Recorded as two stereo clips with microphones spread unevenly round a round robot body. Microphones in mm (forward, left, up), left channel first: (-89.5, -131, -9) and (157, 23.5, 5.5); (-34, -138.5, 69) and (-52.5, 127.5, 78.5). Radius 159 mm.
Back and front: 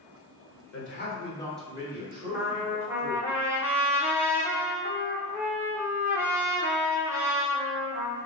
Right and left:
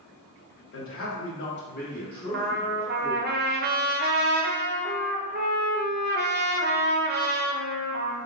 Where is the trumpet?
115° left, 0.7 m.